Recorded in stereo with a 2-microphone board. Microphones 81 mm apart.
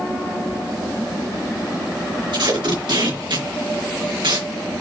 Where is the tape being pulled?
70° right (ahead or behind), 3.5 m.